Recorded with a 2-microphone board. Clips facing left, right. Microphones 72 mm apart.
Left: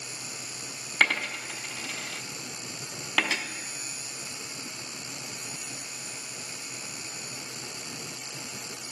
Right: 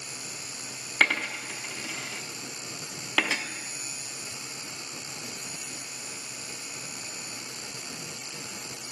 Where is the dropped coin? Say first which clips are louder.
Even; 5° right (ahead or behind), 1.1 m.